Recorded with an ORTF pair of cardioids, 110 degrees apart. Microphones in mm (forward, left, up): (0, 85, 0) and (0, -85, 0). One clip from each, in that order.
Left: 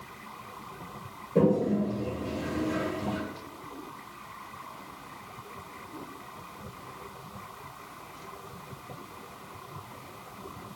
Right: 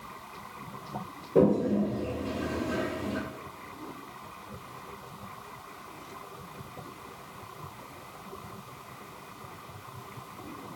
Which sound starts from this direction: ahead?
A toilet flushing, at 1.4 s.